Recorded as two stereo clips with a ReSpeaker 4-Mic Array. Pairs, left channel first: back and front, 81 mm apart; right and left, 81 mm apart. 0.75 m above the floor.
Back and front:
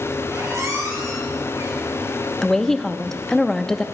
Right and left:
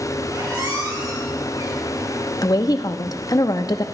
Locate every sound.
0.3 s a squeak: 50° left, 3 m
2.4 s a woman speaking: 100° right, 0.7 m